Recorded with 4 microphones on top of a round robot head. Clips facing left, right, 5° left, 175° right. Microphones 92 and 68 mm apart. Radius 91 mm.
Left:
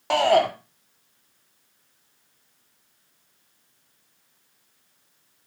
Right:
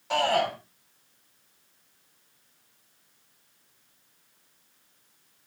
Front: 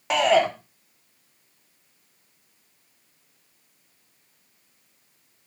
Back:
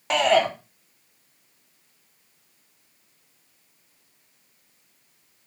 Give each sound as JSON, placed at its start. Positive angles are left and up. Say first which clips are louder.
{"t": 0.1, "sound": "a shout", "louder": "left 6 dB, even", "azimuth_deg": 90, "distance_m": 2.5}